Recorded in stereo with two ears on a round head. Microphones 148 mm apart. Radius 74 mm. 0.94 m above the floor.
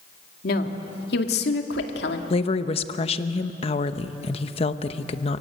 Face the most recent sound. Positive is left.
turn(degrees=35)  # may be behind; listen again after turning